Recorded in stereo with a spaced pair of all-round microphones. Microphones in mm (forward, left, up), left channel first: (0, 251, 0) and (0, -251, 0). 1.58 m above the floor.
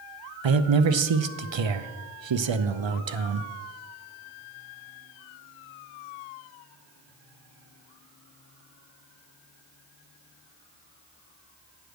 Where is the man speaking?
60° right (ahead or behind), 0.6 m.